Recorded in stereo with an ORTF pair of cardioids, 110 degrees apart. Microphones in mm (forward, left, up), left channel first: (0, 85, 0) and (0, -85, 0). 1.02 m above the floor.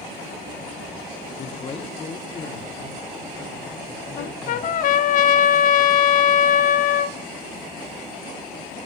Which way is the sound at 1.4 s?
40° left.